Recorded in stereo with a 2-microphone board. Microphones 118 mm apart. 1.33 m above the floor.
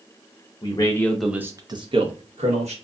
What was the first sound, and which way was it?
A man speaking, 40° left (ahead or behind).